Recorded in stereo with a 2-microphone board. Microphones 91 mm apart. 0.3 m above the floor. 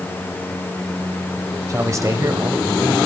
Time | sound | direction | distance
1.7 | a man speaking | 35° right (ahead or behind) | 1.0 m